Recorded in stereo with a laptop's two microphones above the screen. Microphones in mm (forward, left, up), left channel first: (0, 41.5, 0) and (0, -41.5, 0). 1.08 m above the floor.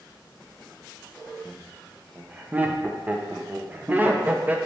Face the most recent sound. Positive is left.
turn(degrees=-20)  # may be behind; listen again after turning